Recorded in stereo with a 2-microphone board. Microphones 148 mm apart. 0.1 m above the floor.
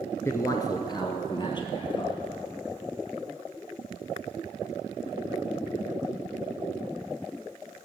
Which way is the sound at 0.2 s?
20° left (ahead or behind).